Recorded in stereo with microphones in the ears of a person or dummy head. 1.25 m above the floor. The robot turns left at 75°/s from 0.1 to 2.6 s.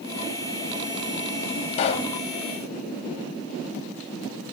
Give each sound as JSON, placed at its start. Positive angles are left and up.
{"t": 1.7, "sound": "a pop", "side_deg": 40, "distance_m": 1.3}